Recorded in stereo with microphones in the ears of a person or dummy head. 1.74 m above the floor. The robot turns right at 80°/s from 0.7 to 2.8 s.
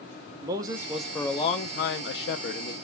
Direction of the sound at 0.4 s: 20° right.